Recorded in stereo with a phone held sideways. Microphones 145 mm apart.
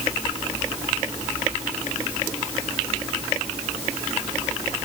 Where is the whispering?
No whispering in this recording.